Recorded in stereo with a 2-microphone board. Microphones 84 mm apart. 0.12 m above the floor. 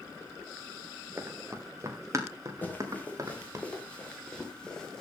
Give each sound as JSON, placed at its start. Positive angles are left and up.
{"t": 1.2, "sound": "running footsteps", "side_deg": -30, "distance_m": 3.5}
{"t": 2.6, "sound": "running footsteps", "side_deg": 25, "distance_m": 5.0}